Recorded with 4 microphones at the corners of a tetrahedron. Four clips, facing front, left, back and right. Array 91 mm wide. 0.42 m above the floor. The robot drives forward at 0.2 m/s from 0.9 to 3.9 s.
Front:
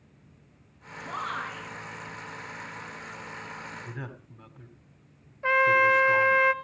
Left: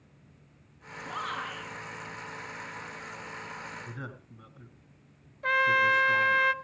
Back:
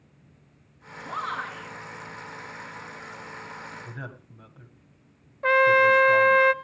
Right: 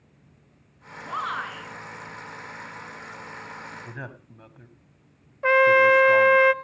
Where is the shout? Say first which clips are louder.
Right 6 dB, back 2 dB; 100° right, 6.5 m; by 1.7 s 105° right, 6.5 m.